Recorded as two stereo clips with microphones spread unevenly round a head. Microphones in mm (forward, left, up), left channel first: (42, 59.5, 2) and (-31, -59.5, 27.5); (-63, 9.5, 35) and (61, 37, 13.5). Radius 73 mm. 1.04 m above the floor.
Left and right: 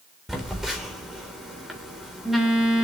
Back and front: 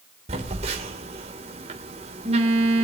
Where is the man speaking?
I don't hear a man speaking.